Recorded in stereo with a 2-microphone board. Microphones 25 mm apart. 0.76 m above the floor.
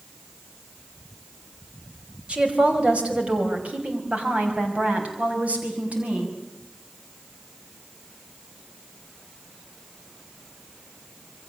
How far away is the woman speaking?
About 5 m.